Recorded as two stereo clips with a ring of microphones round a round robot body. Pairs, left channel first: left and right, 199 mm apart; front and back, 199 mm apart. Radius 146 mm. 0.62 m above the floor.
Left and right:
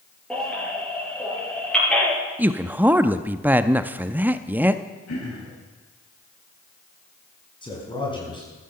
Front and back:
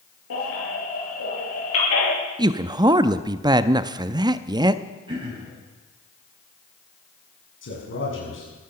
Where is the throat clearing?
115° left, 7.5 m.